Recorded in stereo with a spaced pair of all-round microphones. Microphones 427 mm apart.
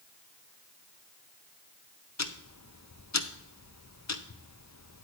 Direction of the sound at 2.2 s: 40° left (ahead or behind).